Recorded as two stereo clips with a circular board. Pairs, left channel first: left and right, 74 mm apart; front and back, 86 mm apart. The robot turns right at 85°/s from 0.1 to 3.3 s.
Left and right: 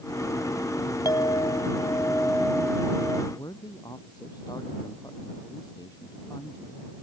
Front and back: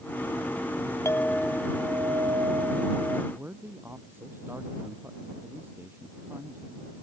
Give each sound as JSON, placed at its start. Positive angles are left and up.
{"t": 1.1, "sound": "a clink", "azimuth_deg": 55}
{"t": 3.3, "sound": "a man speaking", "azimuth_deg": 115}